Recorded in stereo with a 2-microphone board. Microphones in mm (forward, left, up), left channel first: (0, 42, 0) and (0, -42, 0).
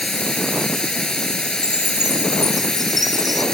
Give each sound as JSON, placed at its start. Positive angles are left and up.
{"t": 0.0, "sound": "running water", "side_deg": 10}
{"t": 1.6, "sound": "a chime", "side_deg": -55}